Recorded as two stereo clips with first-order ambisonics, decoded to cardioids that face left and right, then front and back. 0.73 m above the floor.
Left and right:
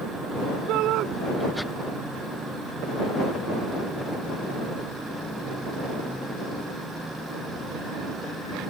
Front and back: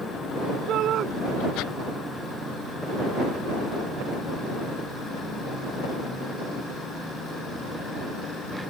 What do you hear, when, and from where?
0.7 s a shout: 130° right